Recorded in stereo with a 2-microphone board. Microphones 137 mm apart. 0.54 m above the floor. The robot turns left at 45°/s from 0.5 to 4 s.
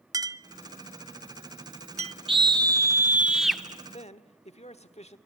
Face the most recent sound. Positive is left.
turn(degrees=50)  # may be behind; listen again after turning